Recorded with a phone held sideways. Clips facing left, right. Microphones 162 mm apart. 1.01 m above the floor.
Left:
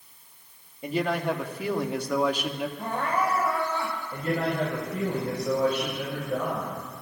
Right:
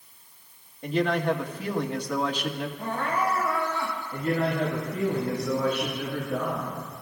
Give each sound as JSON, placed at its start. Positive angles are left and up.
{"t": 0.8, "sound": "a man speaking", "side_deg": 5, "distance_m": 1.5}
{"t": 2.8, "sound": "crying", "side_deg": 30, "distance_m": 5.5}
{"t": 4.1, "sound": "a man speaking", "side_deg": 50, "distance_m": 5.0}